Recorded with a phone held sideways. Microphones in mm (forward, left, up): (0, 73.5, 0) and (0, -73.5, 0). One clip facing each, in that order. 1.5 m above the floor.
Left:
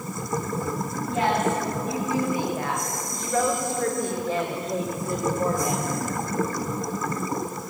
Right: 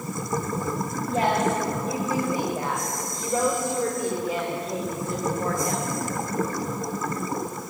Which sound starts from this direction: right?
A woman speaking, at 1.1 s.